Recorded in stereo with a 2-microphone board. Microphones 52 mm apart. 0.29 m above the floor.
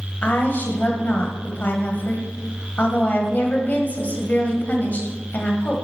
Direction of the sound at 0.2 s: 35° left (ahead or behind).